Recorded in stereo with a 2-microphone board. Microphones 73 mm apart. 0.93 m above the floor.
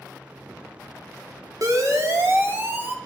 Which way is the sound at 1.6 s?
50° right (ahead or behind).